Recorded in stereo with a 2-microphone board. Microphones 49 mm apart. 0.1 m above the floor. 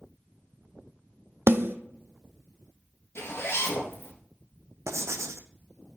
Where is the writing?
75° right (ahead or behind), 0.8 m.